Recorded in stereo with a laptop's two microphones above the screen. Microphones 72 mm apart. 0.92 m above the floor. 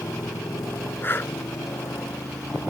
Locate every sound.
0.0 s a motorcycle: 50° left (ahead or behind); by 2.7 s 45° left (ahead or behind)
1.0 s breathing: 30° left (ahead or behind)